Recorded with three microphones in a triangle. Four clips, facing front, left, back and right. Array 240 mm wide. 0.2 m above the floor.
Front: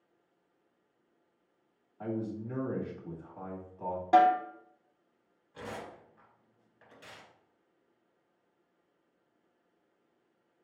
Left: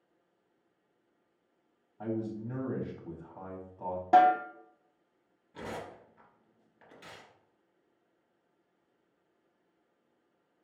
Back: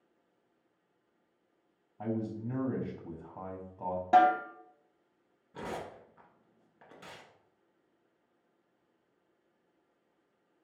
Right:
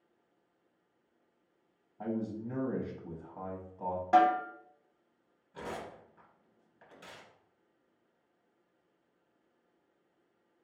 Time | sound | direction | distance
2.0 | a man speaking | 160° right | 1.0 m
4.1 | a snare drum | 100° left | 0.7 m
5.5 | tearing paper | 165° left | 1.5 m